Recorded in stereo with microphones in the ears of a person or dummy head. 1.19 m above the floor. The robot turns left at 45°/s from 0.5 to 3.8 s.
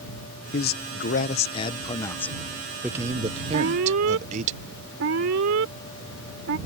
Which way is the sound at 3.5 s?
85° right.